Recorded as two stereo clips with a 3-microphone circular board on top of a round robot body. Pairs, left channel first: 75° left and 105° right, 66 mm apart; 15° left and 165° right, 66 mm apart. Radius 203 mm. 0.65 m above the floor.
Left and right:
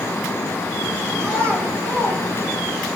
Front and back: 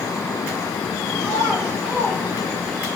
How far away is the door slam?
No door slam in this recording.